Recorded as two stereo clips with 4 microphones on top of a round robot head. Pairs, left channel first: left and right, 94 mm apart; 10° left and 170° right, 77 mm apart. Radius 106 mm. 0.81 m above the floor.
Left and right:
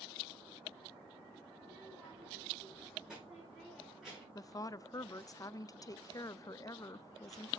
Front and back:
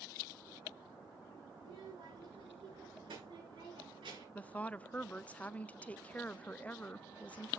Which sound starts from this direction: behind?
A child speaking, at 1.6 s.